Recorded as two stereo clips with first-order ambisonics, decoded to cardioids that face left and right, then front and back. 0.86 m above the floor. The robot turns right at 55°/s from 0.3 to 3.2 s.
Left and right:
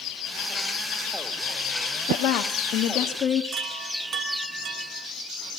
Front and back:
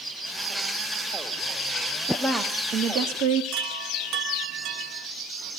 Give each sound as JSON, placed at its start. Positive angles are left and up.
{"t": 2.1, "sound": "a woman speaking", "azimuth_deg": 85, "distance_m": 1.4}
{"t": 3.5, "sound": "a chime", "azimuth_deg": -150, "distance_m": 1.4}